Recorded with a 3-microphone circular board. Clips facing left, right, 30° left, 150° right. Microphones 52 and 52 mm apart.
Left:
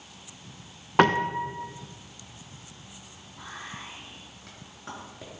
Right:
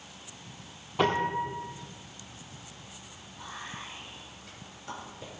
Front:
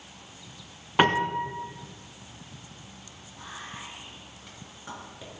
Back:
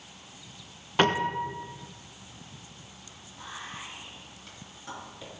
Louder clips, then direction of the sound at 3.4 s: Left 1 dB, even; 105° left.